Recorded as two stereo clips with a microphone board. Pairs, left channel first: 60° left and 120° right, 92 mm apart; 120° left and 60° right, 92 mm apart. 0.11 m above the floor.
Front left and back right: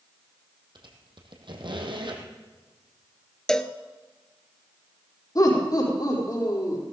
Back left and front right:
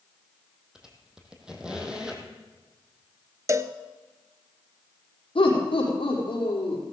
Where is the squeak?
140° right, 2 m.